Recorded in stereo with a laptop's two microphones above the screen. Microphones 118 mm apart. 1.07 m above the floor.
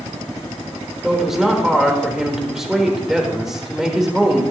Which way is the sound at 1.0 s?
5° right (ahead or behind).